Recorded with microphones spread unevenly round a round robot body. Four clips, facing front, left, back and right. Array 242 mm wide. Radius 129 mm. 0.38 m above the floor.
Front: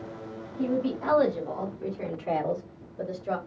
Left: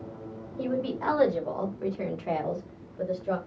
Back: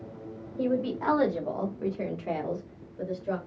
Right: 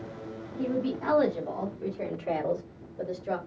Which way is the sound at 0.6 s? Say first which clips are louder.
Even, even; 145° left.